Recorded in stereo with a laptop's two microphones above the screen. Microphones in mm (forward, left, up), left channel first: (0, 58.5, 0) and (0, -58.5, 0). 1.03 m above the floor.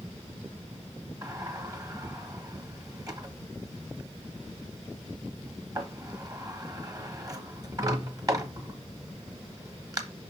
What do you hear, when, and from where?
1.2 s a sliding door: 30° right (ahead or behind), 0.9 m